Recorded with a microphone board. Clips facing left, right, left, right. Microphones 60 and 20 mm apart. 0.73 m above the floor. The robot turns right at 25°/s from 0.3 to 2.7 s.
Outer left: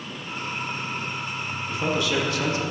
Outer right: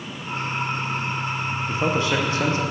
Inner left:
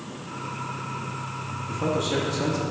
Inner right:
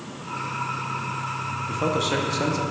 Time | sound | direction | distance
1.7 | a man speaking | 30° right (ahead or behind) | 0.6 m